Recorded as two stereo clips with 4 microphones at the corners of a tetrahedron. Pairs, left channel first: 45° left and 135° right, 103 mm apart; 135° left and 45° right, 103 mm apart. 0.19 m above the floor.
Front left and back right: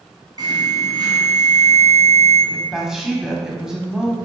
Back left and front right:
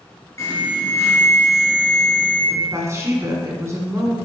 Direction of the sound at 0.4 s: 170° right.